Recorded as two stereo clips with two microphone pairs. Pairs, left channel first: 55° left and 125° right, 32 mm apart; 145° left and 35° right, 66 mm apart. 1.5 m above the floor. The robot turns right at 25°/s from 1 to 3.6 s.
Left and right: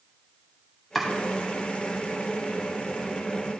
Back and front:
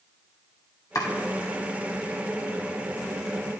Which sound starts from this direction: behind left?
Chopping, at 0.9 s.